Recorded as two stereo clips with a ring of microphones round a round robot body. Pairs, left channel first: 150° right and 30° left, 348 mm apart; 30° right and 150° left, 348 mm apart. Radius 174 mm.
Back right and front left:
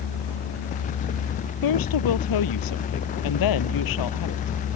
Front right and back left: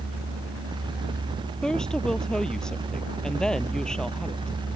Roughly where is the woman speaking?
Behind right.